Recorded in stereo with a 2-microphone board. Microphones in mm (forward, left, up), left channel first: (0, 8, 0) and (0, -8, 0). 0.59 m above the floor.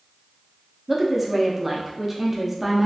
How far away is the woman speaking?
About 0.6 m.